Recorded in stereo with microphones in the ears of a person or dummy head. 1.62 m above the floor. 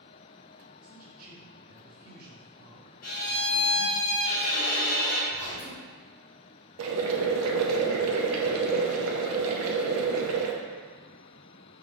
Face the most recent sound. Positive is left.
turn(degrees=-75)  # may be behind; listen again after turning